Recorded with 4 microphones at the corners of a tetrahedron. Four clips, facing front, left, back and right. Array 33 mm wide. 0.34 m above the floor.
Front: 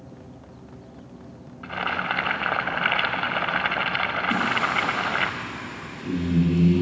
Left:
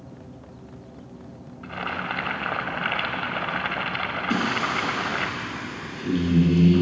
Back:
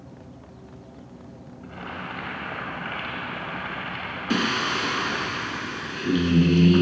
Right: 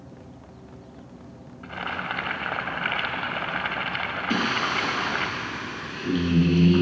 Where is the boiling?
Straight ahead, 1.4 m.